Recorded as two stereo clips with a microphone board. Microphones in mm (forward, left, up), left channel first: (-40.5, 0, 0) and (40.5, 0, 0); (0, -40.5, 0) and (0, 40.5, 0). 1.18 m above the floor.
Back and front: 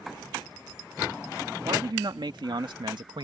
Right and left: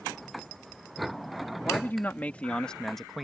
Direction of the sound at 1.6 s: 25° right.